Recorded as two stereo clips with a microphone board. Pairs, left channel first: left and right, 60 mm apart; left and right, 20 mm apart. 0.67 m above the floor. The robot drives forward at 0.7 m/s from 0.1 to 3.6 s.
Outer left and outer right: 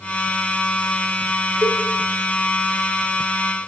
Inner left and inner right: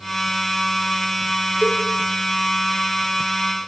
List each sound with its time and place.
1.6 s a cowbell: 70° right (ahead or behind), 4.5 m